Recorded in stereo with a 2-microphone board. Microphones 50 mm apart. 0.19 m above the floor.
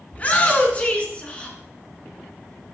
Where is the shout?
30° left (ahead or behind), 1.6 m; by 1.6 s 20° left (ahead or behind), 2 m.